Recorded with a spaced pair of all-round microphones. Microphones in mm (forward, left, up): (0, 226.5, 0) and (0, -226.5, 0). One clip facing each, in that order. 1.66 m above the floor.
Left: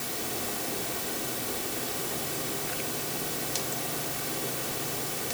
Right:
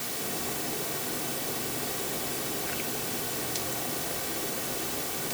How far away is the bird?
No bird in this recording.